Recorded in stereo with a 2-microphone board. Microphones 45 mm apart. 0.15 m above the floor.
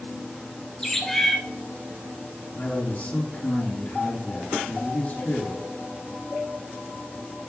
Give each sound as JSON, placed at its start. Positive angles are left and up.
{"t": 0.8, "sound": "a bird", "side_deg": 5, "distance_m": 1.2}
{"t": 2.5, "sound": "a man speaking", "side_deg": 35, "distance_m": 3.5}